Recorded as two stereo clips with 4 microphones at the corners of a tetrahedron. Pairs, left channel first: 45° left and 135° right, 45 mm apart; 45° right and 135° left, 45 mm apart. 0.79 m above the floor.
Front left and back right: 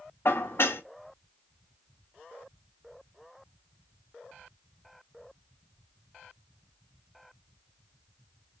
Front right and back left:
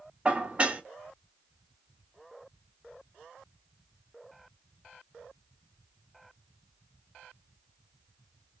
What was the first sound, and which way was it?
Dishes clattering, 75° left.